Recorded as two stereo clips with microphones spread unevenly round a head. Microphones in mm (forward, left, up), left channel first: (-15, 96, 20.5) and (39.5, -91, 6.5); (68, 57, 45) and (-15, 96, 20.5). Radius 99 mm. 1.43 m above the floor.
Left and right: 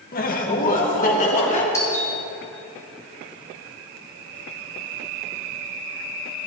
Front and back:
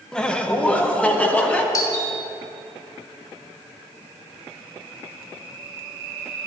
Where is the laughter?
60° left, 1.5 m; by 1.6 s 50° left, 3 m.